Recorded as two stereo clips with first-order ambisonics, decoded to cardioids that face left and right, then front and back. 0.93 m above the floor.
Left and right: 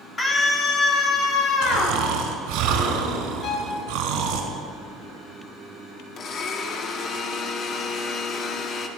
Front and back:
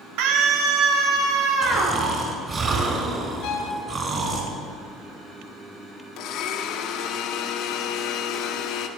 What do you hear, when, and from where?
0.2 s a scream: 165° left, 2.5 m; by 2.0 s 135° left, 3.5 m
1.6 s snoring: 115° right, 4 m
3.4 s a violin: 40° left, 5 m
6.2 s a blender: 35° left, 1.8 m